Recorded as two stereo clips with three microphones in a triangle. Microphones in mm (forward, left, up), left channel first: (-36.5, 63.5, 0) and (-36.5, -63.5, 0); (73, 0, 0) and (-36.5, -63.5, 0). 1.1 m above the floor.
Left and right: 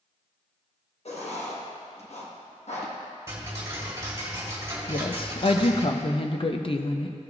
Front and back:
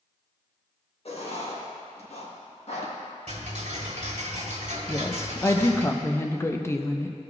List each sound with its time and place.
1.1 s writing: 60° left, 1.2 m
3.3 s ticking: 150° right, 1.8 m
4.9 s a woman speaking: 90° left, 0.5 m